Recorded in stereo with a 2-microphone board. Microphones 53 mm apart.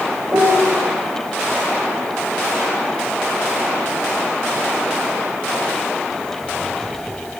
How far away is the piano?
About 2.5 m.